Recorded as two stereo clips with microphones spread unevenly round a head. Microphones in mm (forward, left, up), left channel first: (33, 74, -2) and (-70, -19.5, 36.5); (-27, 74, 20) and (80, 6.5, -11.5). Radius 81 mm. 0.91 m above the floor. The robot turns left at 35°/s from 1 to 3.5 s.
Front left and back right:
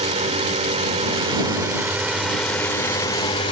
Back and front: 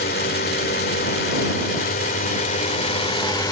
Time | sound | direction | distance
0.0 | a drone | 175° left | ?